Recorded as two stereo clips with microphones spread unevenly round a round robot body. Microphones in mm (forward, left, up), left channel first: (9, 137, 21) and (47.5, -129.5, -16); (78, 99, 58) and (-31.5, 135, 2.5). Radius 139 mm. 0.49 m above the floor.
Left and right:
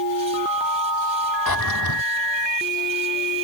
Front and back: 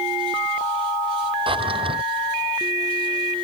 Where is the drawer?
125° left.